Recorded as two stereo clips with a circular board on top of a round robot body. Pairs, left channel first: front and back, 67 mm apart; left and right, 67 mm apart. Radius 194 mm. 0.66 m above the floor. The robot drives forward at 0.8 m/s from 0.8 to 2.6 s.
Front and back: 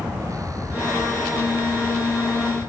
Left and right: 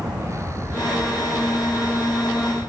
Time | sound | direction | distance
0.0 | a vehicle | 140° right | ?